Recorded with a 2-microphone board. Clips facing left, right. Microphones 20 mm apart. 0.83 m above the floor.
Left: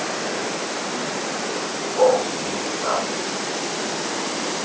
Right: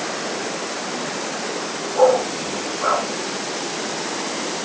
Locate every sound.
1.9 s a dog barking: 70° right (ahead or behind), 4 m